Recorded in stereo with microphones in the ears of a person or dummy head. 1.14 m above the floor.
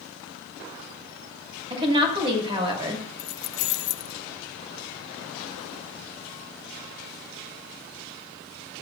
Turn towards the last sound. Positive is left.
turn(degrees=70)  # may be behind; listen again after turning